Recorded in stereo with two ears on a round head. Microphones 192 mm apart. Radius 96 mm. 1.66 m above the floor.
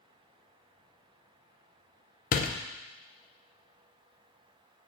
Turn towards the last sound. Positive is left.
turn(degrees=40)  # may be behind; listen again after turning